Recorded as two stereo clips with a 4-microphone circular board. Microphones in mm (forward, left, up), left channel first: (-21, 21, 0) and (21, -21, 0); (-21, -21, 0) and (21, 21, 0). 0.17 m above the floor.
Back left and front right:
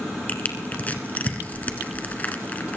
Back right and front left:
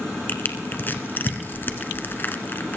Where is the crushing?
175° right, 1.5 m.